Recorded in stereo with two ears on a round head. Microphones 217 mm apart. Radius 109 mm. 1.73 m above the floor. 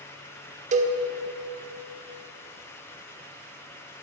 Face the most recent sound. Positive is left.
turn(degrees=-30)  # may be behind; listen again after turning